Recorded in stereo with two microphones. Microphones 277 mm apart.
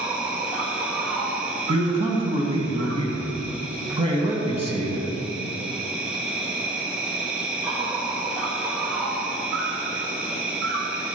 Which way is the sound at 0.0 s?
5° right (ahead or behind).